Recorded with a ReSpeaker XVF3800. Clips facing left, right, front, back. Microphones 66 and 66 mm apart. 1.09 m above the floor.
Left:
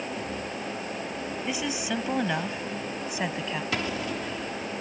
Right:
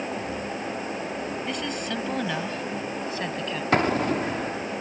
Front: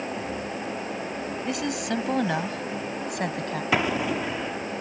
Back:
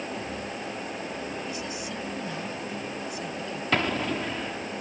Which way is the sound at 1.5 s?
10° left.